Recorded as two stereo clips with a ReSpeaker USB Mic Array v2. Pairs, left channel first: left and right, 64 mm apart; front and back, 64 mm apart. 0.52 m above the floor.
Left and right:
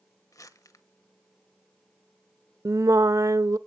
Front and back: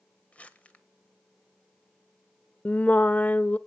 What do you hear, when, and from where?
0.3 s crumpling: 65° left, 1.1 m
2.6 s singing: 65° right, 0.5 m